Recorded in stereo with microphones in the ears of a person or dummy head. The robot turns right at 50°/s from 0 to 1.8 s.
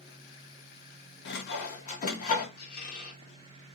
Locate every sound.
1.2 s sawing: 60° left (ahead or behind), 0.5 m; by 2.5 s 45° left (ahead or behind), 0.5 m
2.6 s a squeak: 55° left (ahead or behind), 1.2 m